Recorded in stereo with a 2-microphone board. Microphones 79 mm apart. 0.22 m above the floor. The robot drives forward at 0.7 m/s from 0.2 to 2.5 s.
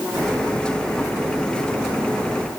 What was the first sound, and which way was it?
Only background noise.